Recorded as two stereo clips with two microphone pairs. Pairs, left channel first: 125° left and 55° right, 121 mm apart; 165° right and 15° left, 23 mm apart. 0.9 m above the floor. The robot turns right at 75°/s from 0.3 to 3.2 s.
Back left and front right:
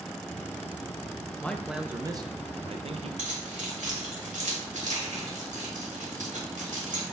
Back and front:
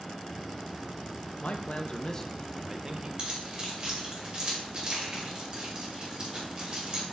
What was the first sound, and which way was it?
A man speaking, 160° right.